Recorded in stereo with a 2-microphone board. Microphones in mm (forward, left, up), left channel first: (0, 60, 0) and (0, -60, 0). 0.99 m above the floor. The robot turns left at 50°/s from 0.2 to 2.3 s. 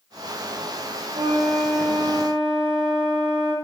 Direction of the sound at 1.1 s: 105° right.